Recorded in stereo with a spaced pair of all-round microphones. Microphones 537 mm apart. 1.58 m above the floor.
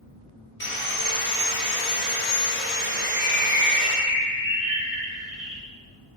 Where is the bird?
35° left (ahead or behind), 2 m.